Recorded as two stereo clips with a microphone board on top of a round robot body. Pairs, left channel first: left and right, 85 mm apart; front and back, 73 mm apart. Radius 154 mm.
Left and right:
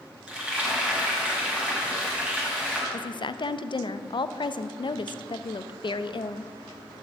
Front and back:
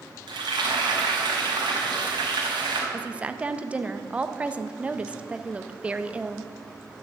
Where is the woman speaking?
105° left, 0.6 m.